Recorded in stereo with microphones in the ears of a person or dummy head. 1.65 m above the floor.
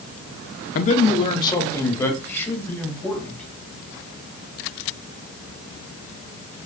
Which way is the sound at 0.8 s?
50° left (ahead or behind).